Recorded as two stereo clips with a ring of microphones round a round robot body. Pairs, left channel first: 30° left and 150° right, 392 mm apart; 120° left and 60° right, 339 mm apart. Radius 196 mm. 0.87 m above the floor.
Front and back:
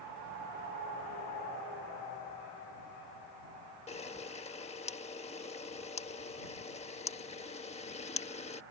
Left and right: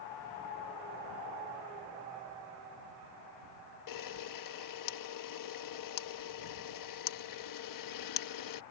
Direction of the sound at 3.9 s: 105° left.